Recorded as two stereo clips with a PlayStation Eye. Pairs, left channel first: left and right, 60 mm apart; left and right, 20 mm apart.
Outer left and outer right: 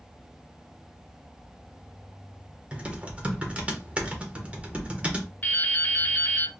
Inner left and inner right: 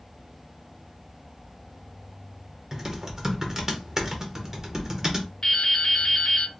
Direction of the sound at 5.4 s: 35° left (ahead or behind).